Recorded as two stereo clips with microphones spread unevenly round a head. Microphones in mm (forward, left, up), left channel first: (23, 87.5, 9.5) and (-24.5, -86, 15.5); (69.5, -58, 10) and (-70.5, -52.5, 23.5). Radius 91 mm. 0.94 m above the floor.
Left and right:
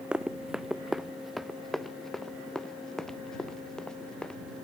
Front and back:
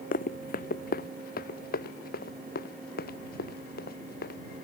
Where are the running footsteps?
20° right; by 4.7 s 10° right.